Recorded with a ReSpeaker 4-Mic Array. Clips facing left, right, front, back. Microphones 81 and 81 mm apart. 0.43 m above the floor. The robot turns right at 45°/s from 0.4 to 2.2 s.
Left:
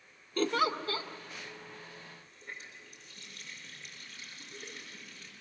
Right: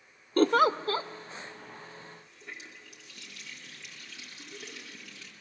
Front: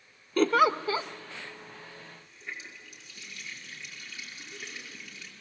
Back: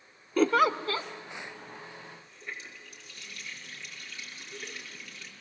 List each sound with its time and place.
0.4 s a giggle: 95° right, 0.6 m; by 1.1 s 65° right, 0.6 m
2.0 s a running tap: 85° right, 5 m; by 5.3 s 75° right, 5 m